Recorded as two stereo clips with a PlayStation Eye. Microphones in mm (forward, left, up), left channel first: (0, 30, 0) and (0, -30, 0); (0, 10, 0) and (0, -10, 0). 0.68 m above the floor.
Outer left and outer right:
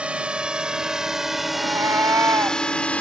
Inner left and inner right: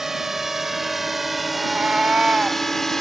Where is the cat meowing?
65° right (ahead or behind).